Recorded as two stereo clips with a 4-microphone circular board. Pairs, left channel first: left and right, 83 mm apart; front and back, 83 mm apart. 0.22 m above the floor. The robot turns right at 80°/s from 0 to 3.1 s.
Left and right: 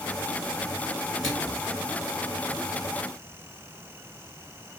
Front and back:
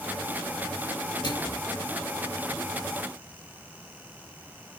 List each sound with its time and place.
1.2 s a microwave: straight ahead, 3.5 m; by 1.6 s 30° left, 3.5 m